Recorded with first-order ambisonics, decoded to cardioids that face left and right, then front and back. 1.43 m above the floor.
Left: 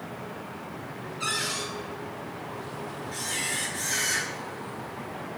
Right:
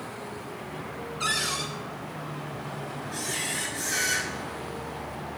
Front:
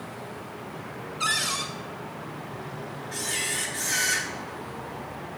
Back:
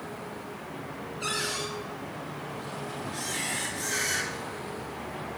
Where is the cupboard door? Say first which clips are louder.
Right 2 dB, front 5 dB; 15° right, 3 m.